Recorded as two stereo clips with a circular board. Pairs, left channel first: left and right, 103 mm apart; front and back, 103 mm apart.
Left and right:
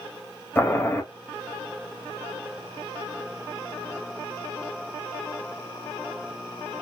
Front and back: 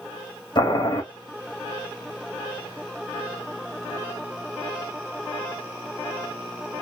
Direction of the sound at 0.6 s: 30° left.